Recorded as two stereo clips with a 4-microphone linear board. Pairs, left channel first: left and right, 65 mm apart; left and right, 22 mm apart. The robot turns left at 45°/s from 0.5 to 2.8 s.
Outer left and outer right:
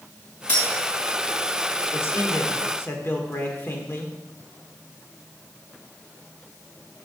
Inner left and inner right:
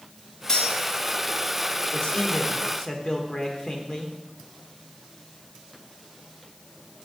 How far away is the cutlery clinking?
About 3.5 m.